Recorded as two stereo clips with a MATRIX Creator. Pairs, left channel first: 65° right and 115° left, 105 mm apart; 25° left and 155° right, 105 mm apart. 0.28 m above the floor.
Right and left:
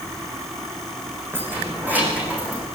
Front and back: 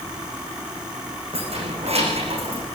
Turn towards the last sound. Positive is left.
turn(degrees=-170)